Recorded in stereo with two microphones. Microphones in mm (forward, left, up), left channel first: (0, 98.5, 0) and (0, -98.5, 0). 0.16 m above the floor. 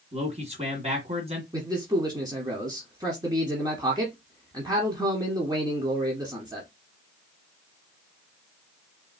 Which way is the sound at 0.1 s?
35° right (ahead or behind).